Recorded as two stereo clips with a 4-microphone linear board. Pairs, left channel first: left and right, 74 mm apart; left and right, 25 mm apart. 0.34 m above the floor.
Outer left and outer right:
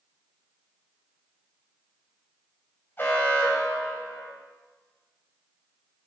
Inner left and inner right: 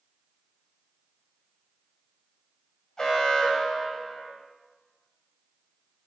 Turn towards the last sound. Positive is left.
turn(degrees=30)  # may be behind; listen again after turning